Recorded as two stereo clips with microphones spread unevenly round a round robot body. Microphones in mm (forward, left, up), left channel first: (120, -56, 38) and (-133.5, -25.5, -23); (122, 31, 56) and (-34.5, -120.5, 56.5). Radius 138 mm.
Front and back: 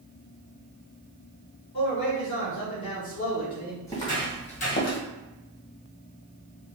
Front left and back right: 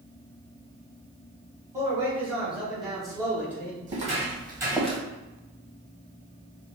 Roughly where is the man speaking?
Right.